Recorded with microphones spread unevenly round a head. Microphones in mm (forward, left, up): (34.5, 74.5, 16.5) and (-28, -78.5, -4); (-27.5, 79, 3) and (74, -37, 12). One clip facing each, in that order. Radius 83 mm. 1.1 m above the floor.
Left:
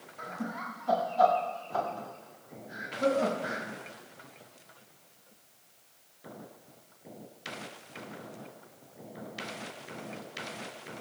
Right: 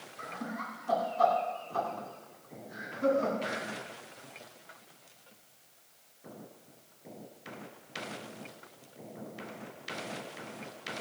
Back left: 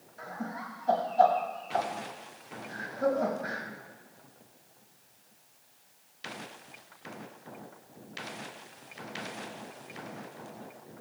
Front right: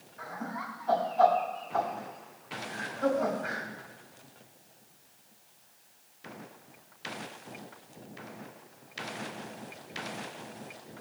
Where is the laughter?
80° left, 7.5 m.